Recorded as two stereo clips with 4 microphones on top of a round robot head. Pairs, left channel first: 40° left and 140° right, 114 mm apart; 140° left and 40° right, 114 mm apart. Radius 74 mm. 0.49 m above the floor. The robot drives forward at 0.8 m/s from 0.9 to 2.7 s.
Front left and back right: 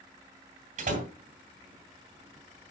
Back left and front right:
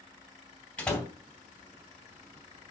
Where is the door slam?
140° right, 2 m; by 1.1 s 145° right, 2 m.